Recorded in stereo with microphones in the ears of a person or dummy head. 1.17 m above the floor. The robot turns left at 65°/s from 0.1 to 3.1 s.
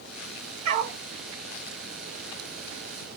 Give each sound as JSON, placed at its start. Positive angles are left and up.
{"t": 0.7, "sound": "a dog barking", "side_deg": -45, "distance_m": 3.0}